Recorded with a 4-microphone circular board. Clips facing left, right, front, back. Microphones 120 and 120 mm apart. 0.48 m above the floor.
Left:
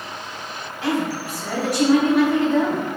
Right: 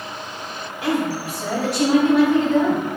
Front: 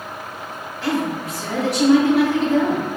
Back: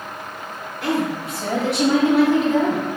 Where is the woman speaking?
165° right, 1.9 m; by 2.8 s 150° right, 2.5 m.